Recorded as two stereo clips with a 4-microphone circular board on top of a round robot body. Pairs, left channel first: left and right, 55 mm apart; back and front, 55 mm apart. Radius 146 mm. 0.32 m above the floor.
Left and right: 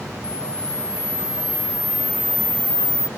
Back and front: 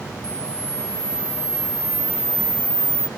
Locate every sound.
0.2 s a camera shutter: 70° left